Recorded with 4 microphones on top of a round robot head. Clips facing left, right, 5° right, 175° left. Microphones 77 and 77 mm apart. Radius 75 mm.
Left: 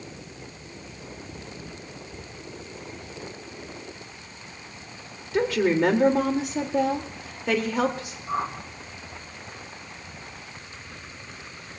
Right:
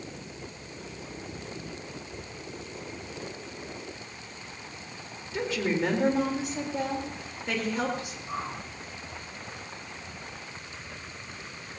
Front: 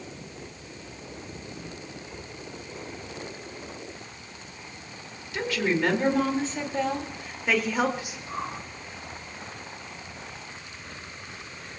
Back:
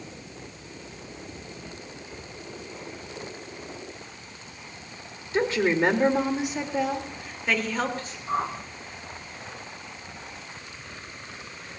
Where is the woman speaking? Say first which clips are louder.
Left 7 dB, back 4 dB; 120° left, 3.5 m; by 8.2 s 70° left, 3.5 m.